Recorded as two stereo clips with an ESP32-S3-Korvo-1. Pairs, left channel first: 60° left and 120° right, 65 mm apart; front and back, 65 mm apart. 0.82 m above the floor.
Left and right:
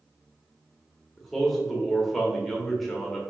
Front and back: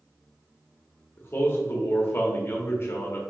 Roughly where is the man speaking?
Ahead right.